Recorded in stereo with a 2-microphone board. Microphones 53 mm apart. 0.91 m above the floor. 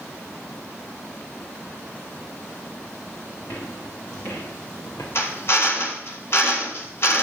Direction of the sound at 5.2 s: 50° left (ahead or behind).